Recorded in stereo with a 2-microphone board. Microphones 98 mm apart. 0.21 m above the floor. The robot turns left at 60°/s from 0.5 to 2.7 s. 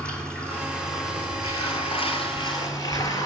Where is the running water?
170° left, 2 m; by 3.3 s 35° left, 2 m.